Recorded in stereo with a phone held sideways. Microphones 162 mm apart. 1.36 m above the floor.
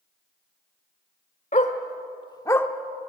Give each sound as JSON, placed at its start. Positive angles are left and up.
{"t": 1.5, "sound": "a dog barking", "side_deg": 50, "distance_m": 1.5}